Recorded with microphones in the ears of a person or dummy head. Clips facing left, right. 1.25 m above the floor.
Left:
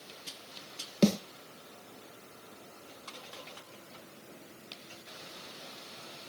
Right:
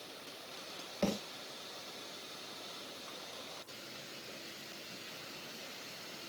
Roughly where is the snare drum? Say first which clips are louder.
Left 9 dB; left.